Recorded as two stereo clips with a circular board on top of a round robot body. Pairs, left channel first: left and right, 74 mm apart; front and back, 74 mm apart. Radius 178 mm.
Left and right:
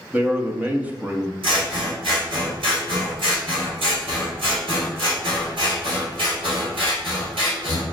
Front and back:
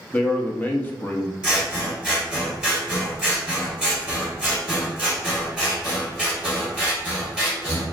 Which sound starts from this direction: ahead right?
A man speaking, at 0.1 s.